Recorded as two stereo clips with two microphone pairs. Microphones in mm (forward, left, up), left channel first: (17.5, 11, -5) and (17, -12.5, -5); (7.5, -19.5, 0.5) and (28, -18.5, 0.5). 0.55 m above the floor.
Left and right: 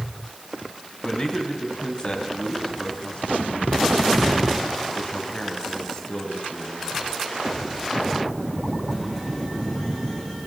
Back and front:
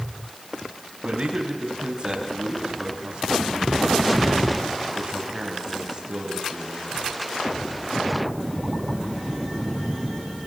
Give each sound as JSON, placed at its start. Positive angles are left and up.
{"t": 1.0, "sound": "a man speaking", "azimuth_deg": 45, "distance_m": 4.5}